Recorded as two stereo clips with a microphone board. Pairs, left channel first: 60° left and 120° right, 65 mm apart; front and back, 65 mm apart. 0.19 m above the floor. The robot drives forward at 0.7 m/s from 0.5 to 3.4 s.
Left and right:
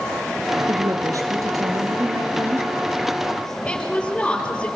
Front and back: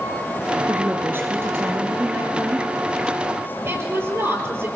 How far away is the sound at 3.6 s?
About 5 m.